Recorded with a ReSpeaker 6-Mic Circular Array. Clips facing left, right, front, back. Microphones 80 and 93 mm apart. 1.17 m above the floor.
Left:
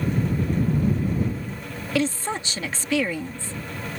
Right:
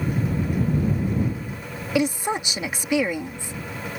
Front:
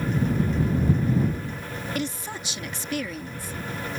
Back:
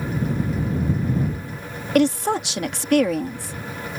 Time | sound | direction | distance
1.9 | a woman speaking | 165° right | ?